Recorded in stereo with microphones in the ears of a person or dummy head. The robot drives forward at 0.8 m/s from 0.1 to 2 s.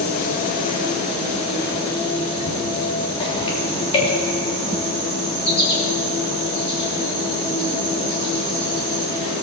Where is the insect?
45° left (ahead or behind), 1.8 m; by 9.4 s 25° left (ahead or behind), 3 m.